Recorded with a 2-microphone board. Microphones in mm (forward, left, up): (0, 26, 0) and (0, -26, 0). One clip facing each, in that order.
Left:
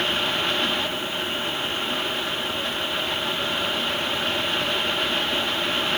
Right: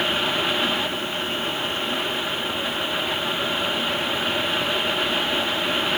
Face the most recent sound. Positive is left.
No sound to turn to.